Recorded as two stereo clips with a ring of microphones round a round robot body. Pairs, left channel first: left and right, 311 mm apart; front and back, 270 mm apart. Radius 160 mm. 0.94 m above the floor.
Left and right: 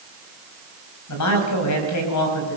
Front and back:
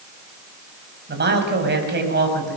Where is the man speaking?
130° left, 5 m.